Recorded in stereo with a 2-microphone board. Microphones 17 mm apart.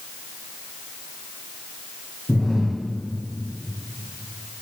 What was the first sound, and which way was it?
Breathing, 30° right (ahead or behind).